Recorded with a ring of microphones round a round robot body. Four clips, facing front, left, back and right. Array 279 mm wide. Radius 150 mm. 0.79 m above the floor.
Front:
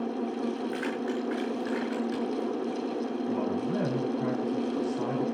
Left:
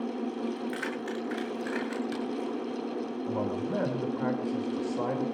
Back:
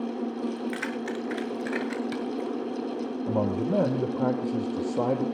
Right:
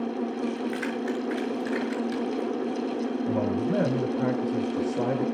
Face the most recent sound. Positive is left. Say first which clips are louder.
# right 4 dB, back 6 dB
turn(degrees=-150)